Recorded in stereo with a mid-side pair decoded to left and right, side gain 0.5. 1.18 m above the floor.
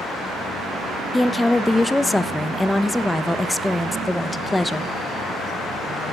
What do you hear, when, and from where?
1.1 s a woman speaking: 15° left, 1.0 m